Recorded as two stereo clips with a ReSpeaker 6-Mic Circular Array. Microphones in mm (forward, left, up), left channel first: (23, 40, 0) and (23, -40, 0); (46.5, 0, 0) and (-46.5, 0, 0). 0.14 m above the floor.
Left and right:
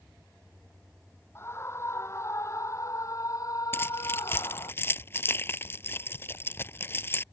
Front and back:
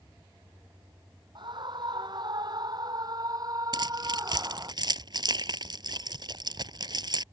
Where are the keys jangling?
145° left.